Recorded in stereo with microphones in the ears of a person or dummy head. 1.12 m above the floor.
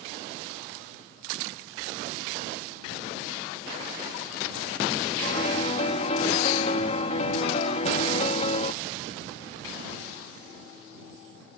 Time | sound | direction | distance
5.2 | a piano | 35° left (ahead or behind) | ?